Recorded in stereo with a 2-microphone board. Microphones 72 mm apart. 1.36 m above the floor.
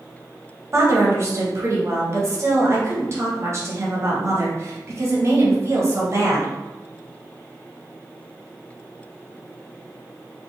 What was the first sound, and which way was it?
A woman speaking, 40° right (ahead or behind).